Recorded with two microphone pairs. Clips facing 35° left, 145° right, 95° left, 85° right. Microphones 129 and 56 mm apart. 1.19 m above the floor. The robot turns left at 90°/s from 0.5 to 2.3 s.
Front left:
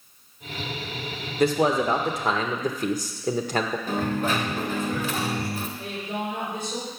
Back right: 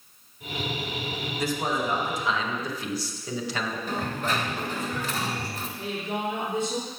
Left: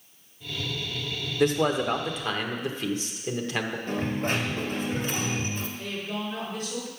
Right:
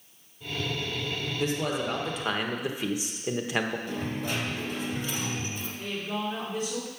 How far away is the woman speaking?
About 3.5 m.